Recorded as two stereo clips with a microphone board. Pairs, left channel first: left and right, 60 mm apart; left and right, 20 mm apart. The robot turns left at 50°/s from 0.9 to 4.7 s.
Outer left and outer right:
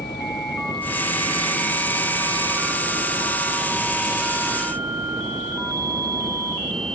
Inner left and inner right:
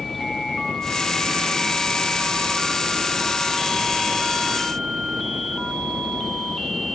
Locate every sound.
0.0 s a helicopter: 85° left; by 7.0 s 105° right